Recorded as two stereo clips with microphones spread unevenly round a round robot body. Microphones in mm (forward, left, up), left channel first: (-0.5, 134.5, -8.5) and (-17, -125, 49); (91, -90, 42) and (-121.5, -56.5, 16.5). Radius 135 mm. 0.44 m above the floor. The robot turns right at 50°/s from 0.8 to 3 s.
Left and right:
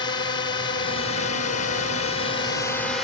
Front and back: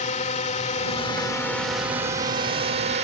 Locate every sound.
0.0 s a drone: 40° left; by 3.0 s 160° left